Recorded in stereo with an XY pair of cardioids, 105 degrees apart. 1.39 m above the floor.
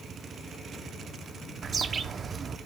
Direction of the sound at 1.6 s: 45° right.